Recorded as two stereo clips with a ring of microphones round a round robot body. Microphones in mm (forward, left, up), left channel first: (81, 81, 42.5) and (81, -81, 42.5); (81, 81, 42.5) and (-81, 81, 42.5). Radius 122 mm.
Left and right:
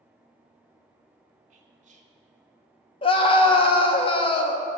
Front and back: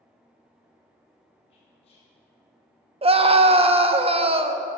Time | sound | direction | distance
1.5 | whispering | 55° right | 2 m
3.0 | a scream | 140° left | 1.0 m